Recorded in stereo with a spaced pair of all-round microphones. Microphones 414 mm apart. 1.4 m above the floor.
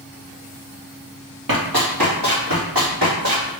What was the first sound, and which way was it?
Running footsteps, 50° right (ahead or behind).